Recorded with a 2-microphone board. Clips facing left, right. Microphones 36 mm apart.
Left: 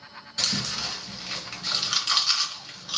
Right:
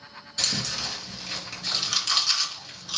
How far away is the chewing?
About 3.5 m.